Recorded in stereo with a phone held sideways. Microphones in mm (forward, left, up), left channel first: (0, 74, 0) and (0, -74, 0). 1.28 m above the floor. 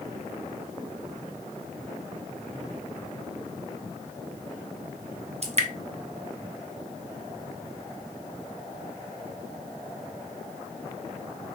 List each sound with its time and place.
5.4 s dripping: 45° right (ahead or behind), 0.9 m